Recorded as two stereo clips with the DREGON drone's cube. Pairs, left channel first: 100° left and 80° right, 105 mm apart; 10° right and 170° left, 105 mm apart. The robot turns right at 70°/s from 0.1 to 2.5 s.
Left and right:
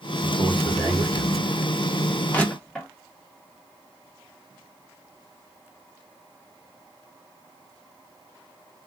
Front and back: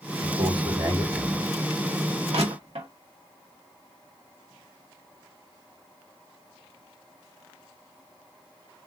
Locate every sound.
0.2 s a man speaking: 165° left, 3 m; by 1.5 s 105° right, 3 m
2.3 s crushing: 170° left, 1.6 m; by 2.9 s 175° right, 1.6 m